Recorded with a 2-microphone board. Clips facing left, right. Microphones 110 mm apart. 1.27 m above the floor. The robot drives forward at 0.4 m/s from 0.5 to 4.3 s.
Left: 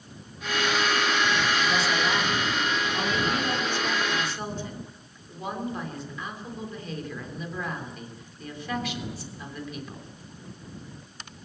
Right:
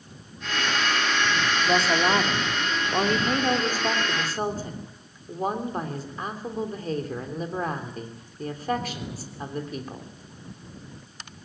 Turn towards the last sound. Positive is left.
turn(degrees=-40)  # may be behind; listen again after turning